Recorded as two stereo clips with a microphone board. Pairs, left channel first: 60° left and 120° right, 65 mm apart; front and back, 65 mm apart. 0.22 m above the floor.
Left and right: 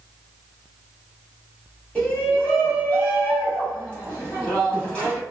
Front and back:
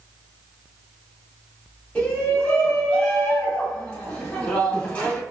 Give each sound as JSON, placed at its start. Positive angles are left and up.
{"t": 1.9, "sound": "a shout", "azimuth_deg": 15, "distance_m": 1.5}